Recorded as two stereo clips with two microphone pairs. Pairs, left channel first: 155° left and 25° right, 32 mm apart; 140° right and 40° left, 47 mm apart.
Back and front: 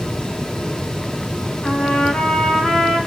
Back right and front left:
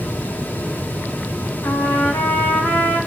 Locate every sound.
1.6 s a trumpet: 145° right, 4 m